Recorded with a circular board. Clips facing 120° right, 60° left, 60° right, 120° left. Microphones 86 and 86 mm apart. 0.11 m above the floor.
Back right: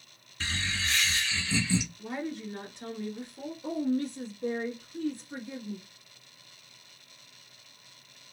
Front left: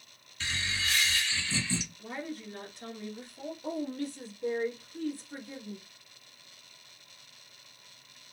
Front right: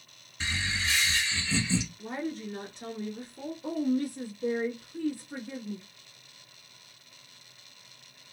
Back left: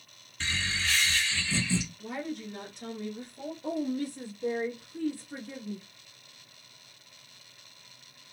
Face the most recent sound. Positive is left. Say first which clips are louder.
# back right 6 dB, front right 3 dB
turn(degrees=-110)